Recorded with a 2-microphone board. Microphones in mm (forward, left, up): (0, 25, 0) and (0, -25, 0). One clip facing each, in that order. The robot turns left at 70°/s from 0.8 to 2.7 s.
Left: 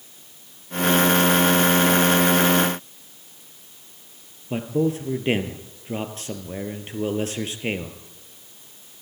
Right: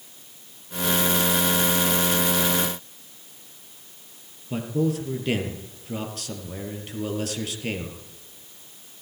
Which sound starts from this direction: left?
A man speaking, at 4.5 s.